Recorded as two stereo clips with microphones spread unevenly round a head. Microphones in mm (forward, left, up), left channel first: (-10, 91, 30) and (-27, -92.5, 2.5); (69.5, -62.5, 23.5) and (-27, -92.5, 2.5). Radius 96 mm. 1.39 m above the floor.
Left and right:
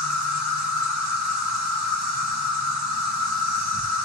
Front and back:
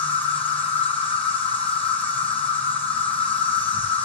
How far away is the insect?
About 1.9 m.